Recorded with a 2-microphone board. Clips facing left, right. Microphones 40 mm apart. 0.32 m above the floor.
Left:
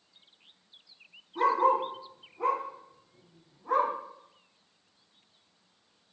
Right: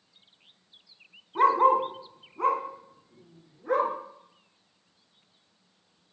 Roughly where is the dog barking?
Right.